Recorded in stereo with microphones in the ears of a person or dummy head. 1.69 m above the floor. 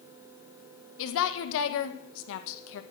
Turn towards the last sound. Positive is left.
turn(degrees=75)  # may be behind; listen again after turning